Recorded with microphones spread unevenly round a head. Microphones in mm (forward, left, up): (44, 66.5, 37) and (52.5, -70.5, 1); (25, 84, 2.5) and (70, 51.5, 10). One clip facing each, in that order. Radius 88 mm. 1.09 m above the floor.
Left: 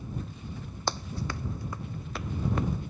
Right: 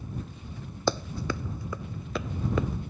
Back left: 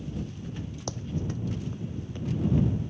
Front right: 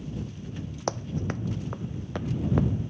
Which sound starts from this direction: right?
Running footsteps, at 0.9 s.